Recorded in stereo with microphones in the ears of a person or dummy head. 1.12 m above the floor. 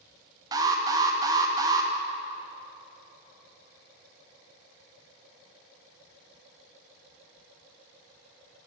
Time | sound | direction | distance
0.5 | an alarm | 20° right (ahead or behind) | 0.9 m